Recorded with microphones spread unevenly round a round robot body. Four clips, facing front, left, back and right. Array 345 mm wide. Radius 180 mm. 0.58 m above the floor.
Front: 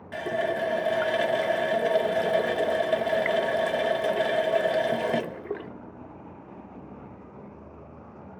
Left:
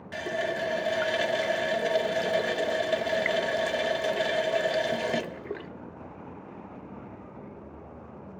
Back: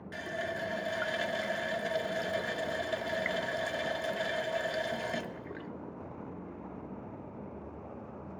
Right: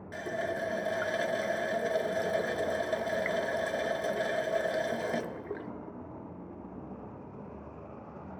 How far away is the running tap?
About 0.6 m.